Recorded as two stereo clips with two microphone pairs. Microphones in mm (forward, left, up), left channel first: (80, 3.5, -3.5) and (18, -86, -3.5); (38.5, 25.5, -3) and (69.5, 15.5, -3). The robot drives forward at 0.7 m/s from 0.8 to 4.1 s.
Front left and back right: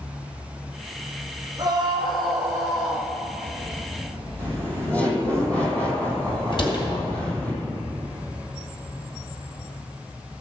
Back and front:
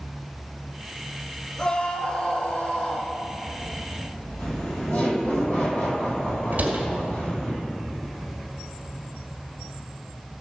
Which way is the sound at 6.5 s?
15° left.